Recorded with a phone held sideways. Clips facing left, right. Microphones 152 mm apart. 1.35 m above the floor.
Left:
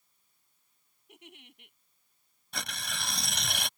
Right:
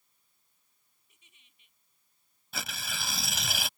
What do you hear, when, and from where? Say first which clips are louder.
1.1 s a giggle: left 21 dB; 70° left (ahead or behind)
2.5 s tearing paper: even; 5° right (ahead or behind)